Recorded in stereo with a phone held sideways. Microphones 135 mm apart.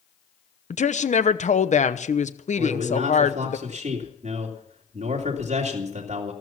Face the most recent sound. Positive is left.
turn(degrees=-55)  # may be behind; listen again after turning